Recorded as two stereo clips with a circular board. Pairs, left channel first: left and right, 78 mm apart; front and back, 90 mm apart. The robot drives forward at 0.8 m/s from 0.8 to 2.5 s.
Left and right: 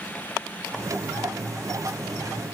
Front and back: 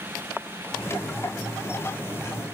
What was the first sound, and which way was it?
Only background noise.